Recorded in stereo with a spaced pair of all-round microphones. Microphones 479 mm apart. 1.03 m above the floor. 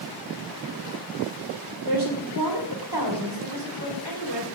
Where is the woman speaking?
50° right (ahead or behind), 3.5 m.